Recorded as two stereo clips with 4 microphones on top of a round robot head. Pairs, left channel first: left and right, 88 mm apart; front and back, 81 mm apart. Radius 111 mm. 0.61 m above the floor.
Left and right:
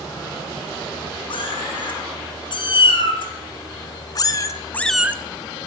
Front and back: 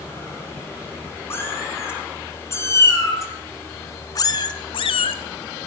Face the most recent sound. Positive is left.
turn(degrees=-75)